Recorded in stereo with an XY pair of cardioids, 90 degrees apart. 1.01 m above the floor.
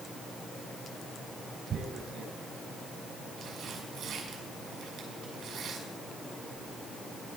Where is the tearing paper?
70° right, 5.5 m.